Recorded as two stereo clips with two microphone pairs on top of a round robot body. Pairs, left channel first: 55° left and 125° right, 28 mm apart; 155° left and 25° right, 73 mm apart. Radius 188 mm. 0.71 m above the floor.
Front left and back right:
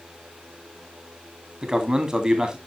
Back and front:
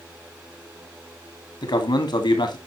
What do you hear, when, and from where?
1.6 s a man speaking: 170° left, 2.5 m